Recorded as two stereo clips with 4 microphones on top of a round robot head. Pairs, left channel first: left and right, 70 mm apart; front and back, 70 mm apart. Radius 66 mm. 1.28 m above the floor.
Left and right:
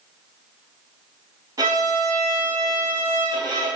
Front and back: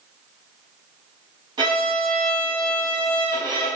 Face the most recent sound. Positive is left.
turn(degrees=-140)